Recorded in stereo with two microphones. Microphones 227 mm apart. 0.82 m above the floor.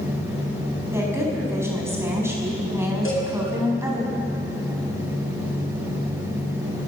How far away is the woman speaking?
About 5.5 m.